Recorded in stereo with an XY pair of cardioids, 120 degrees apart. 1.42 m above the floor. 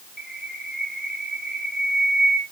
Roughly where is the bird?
Ahead.